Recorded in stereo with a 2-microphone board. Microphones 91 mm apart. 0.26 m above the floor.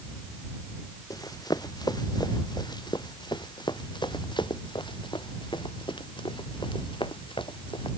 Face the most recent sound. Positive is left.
turn(degrees=65)  # may be behind; listen again after turning